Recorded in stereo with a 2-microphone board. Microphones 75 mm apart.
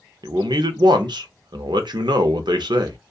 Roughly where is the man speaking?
Right.